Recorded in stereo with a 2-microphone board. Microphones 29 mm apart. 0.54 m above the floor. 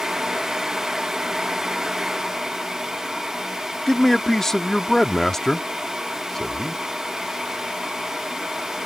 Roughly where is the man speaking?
Centre.